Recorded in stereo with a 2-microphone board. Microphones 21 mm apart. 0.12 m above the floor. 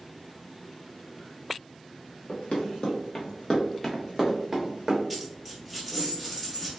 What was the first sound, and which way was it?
Running footsteps, 65° left (ahead or behind).